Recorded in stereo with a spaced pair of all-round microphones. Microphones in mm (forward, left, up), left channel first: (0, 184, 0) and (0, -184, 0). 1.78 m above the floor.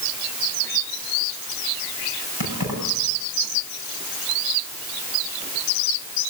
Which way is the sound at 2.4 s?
70° left (ahead or behind).